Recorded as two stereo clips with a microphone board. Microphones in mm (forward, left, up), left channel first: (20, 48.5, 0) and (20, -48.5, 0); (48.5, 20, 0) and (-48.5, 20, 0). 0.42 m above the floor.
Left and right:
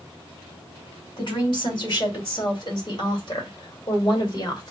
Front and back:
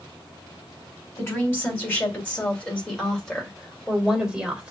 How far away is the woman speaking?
About 2.5 m.